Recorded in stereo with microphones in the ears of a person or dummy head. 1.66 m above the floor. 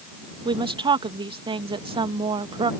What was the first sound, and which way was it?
A woman speaking, 20° right (ahead or behind).